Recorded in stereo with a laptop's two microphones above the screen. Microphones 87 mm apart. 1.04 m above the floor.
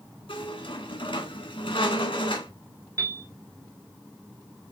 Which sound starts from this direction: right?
A piano, at 3.0 s.